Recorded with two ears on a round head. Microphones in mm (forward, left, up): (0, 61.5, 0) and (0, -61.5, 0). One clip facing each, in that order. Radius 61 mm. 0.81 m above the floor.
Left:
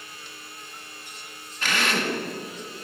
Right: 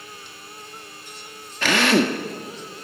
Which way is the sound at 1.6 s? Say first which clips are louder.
Right 8 dB; 55° right (ahead or behind).